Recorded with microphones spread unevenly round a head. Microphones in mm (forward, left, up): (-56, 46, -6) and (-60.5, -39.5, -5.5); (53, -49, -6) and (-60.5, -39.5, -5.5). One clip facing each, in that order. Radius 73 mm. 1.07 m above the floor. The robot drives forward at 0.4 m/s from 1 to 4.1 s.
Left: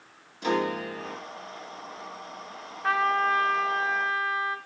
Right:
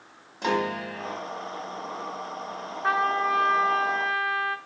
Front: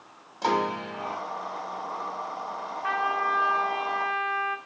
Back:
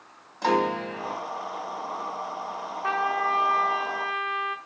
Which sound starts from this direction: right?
A piano, at 0.4 s.